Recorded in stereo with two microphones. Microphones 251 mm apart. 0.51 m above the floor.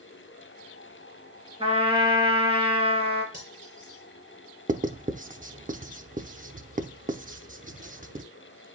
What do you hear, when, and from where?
1.6 s a trumpet: 20° right (ahead or behind), 3.5 m
3.3 s cutlery clinking: 30° right (ahead or behind), 5.5 m
4.7 s writing: 35° right (ahead or behind), 0.7 m